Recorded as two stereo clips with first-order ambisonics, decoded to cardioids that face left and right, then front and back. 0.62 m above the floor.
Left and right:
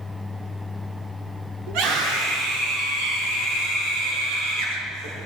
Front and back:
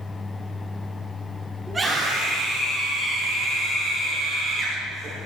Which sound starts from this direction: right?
A scream, at 1.7 s.